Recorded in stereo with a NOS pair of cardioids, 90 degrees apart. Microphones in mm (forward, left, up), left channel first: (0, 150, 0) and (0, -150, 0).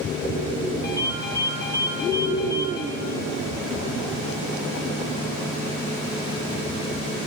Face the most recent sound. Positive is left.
turn(degrees=35)